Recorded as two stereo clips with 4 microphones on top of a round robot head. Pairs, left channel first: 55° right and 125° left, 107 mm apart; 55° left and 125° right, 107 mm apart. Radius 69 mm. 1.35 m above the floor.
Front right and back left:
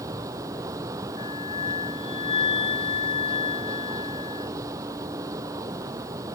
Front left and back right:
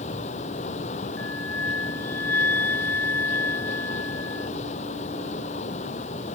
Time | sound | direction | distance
0.0 | running water | 65° left | ?
1.2 | a flute | 20° right | ?